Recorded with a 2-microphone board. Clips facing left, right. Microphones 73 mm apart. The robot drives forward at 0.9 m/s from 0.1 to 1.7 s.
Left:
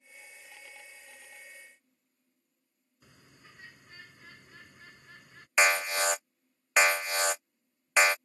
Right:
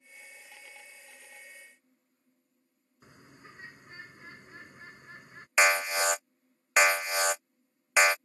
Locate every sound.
3.0 s a bird: 30° right (ahead or behind)
5.6 s an alarm: 10° right (ahead or behind)